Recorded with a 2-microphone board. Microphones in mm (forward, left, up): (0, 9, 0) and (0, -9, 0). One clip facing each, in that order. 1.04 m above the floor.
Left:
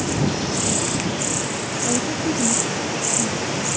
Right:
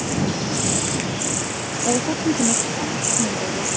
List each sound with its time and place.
1.9 s a woman speaking: 50° right (ahead or behind); by 3.7 s 75° right (ahead or behind)